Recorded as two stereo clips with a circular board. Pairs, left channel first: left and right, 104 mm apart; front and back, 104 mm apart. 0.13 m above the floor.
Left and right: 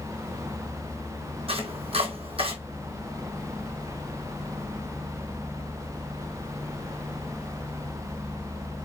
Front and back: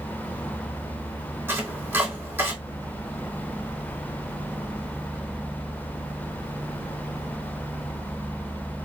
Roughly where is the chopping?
Right.